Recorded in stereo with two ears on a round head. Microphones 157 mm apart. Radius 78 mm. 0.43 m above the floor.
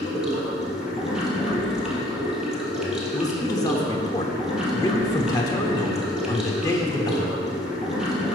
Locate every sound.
0.0 s running water: 5° right (ahead or behind), 1.4 m
3.1 s a man speaking: 20° left (ahead or behind), 0.7 m